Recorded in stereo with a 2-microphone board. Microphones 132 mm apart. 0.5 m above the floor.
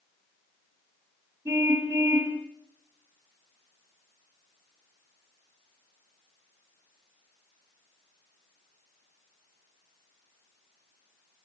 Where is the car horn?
25° right (ahead or behind), 5 m.